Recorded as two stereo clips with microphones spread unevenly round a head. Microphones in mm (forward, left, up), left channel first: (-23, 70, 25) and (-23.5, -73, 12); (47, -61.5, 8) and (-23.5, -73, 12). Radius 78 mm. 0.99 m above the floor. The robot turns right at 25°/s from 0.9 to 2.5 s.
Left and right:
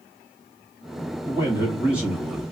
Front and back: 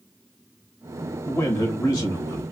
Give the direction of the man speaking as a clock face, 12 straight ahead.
1 o'clock.